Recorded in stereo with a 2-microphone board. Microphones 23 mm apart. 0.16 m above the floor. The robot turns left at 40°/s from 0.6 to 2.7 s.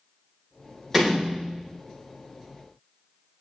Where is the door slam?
Centre (ahead or behind), 3.5 m; by 1.7 s 30° right (ahead or behind), 3.5 m.